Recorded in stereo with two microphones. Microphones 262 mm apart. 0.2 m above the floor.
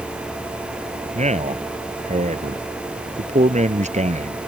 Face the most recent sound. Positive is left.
turn(degrees=-25)  # may be behind; listen again after turning